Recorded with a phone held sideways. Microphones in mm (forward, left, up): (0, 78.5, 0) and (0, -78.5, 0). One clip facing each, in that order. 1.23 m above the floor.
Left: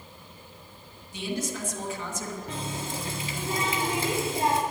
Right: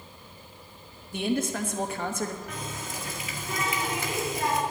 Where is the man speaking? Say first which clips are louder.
Right 5 dB; 65° right (ahead or behind), 1.4 m.